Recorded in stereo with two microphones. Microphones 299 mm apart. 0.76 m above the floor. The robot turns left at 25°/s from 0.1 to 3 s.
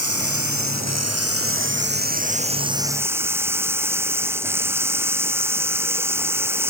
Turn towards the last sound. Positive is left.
turn(degrees=-170)